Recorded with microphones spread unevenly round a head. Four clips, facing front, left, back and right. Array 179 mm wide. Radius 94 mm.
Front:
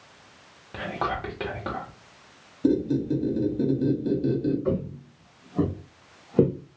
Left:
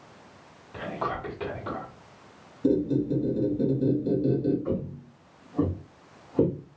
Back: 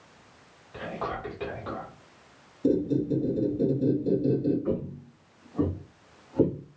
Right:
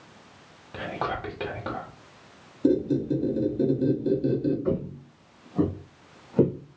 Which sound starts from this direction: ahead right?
Whispering, at 0.7 s.